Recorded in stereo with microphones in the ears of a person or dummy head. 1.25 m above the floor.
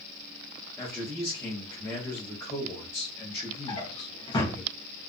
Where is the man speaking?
10° left (ahead or behind), 1.0 m.